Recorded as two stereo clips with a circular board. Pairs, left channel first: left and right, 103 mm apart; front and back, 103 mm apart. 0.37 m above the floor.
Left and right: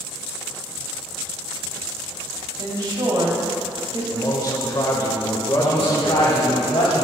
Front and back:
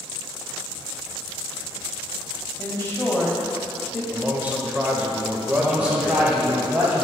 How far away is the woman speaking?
About 2.0 m.